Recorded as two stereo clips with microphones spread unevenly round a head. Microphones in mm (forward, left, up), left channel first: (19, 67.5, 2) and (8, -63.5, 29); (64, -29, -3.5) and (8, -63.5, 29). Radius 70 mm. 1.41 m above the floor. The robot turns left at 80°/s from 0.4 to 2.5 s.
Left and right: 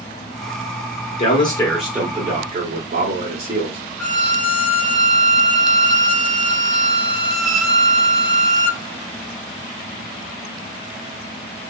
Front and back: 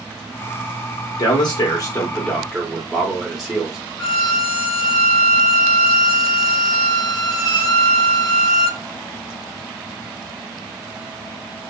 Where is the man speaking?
45° left, 1.5 m; by 3.8 s 60° right, 1.5 m.